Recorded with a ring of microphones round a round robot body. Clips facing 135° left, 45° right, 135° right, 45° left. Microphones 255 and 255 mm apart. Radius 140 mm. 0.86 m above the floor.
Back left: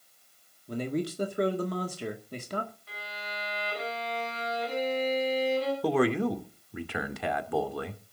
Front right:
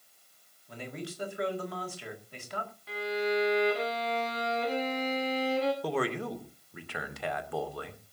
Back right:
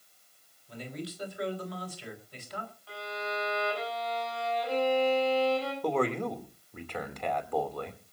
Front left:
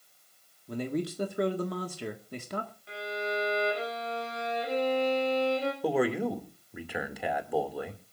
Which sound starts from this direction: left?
A man speaking, at 0.7 s.